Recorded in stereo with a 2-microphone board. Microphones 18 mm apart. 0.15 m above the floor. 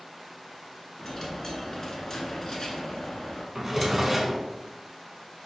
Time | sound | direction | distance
1.0 | a dropped coin | 35° left (ahead or behind) | 0.7 m
3.5 | a drawer | 15° right (ahead or behind) | 0.7 m